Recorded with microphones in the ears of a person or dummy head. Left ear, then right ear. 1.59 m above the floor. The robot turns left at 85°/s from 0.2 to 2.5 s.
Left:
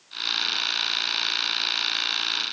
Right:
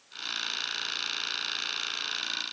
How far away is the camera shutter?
I don't hear a camera shutter.